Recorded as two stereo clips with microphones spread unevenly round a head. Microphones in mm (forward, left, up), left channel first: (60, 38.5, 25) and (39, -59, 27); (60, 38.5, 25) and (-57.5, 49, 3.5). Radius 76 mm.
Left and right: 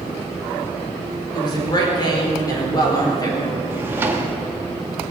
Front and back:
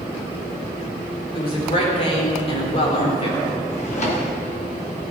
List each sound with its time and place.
1.3 s a woman speaking: 35° left, 5 m; by 3.6 s 25° left, 4 m
3.7 s a drawer: 35° right, 1.7 m